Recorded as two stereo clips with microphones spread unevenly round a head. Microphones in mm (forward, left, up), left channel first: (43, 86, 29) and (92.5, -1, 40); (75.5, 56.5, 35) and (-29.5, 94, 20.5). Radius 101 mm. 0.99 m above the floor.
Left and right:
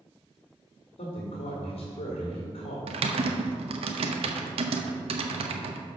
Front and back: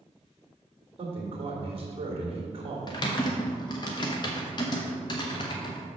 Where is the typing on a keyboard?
80° right, 0.7 m.